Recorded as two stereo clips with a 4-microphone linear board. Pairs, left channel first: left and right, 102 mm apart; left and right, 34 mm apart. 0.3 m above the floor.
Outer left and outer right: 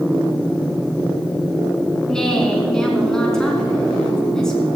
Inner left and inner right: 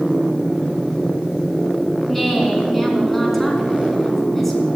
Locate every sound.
2.1 s a woman speaking: 5° left (ahead or behind), 4 m